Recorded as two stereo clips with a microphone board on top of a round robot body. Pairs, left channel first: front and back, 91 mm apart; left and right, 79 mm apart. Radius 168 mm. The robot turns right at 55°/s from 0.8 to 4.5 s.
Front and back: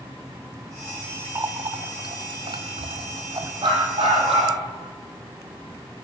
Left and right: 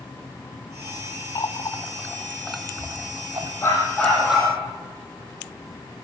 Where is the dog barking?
150° left, 8 m; by 4.5 s 165° right, 8 m.